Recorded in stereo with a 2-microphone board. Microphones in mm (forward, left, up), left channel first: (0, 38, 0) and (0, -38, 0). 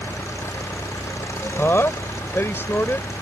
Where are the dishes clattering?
I don't hear dishes clattering.